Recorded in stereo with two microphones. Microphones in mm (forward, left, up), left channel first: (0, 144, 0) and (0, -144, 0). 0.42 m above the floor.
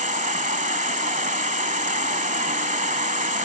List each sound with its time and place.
0.0 s an insect: 25° right (ahead or behind)